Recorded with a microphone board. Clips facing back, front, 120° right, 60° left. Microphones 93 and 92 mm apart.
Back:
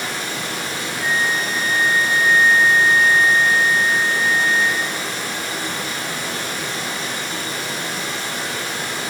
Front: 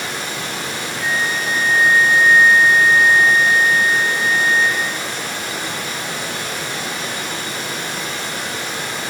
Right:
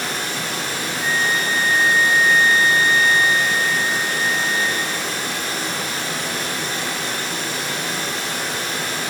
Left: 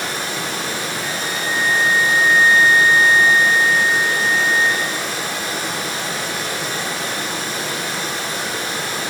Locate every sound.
0.0 s running water: 65° left, 1.5 m
1.0 s a flute: 90° left, 0.6 m